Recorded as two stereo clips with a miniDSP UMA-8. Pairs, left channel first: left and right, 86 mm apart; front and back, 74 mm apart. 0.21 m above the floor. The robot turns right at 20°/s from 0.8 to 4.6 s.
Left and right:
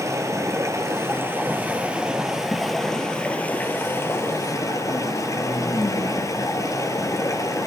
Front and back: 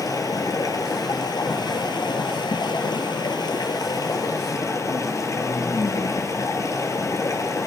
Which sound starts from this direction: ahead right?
Running water, at 0.0 s.